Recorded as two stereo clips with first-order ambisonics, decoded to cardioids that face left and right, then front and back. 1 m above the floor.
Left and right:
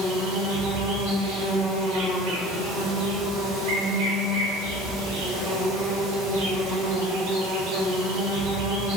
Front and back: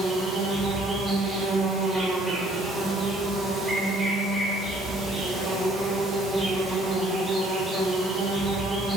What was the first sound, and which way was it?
An insect, 95° right.